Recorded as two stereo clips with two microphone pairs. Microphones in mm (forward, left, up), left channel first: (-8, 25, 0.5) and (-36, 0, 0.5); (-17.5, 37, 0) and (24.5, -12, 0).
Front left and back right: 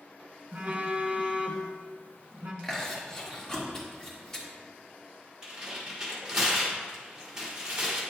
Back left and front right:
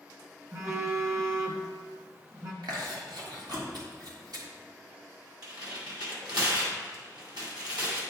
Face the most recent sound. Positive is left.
turn(degrees=-65)